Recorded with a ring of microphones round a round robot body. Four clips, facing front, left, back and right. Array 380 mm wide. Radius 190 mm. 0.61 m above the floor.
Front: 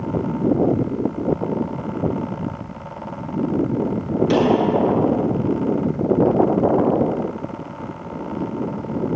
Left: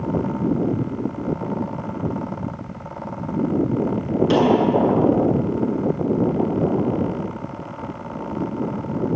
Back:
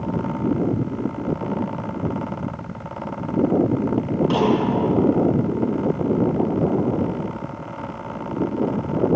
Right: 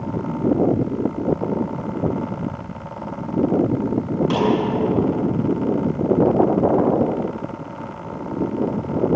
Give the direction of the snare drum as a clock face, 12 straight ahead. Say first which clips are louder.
Left 3 dB, front 3 dB; 11 o'clock.